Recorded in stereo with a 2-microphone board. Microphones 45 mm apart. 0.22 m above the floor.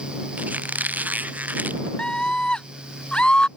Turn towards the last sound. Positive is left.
turn(degrees=20)  # may be behind; listen again after turning